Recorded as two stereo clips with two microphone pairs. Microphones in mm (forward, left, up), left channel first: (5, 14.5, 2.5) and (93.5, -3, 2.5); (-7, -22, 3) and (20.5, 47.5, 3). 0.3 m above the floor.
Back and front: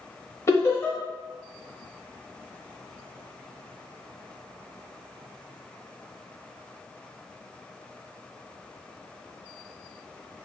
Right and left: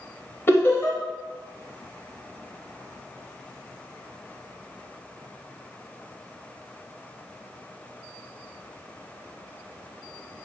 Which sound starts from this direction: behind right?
Laughter, at 0.5 s.